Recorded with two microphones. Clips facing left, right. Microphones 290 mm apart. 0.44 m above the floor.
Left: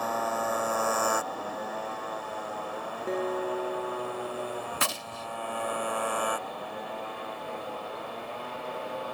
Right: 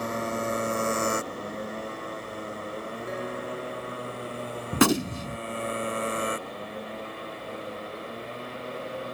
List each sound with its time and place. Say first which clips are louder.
0.0 s a motorcycle: right 2 dB; 25° right (ahead or behind)
3.1 s a guitar: left 7 dB; 40° left (ahead or behind)
4.7 s a gunshot: right 15 dB; 75° right (ahead or behind)